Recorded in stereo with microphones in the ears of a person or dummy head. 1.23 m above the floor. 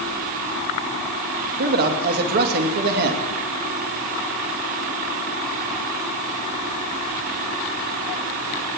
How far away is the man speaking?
About 2.5 m.